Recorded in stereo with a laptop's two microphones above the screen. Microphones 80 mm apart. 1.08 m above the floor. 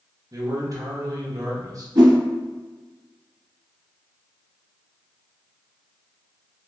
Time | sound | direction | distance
0.3 | a man speaking | 45° right (ahead or behind) | 0.6 m
1.9 | a whoosh | 55° right (ahead or behind) | 1.9 m